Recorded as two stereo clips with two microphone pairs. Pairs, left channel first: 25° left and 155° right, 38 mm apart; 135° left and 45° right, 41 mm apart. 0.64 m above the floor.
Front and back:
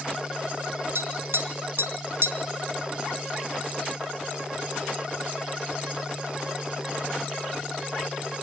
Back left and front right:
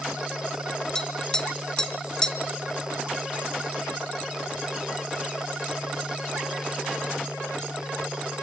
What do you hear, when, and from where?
0.9 s tapping: 150° right, 2 m